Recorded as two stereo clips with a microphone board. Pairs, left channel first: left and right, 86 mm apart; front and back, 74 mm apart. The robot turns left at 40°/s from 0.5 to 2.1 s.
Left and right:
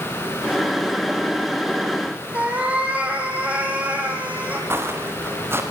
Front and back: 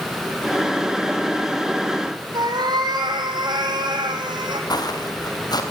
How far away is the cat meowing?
About 3 m.